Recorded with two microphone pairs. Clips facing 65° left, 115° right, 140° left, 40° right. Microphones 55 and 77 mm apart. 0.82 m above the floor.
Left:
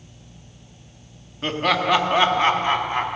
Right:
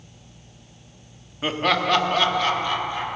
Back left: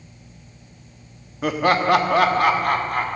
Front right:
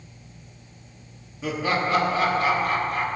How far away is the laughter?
About 1.1 m.